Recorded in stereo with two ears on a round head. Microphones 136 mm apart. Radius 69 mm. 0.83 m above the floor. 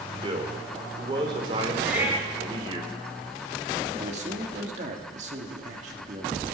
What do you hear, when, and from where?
0.2 s a man speaking: 35° right (ahead or behind), 2.5 m
1.8 s a cat meowing: 10° right (ahead or behind), 4 m
4.0 s a man speaking: 50° right (ahead or behind), 2 m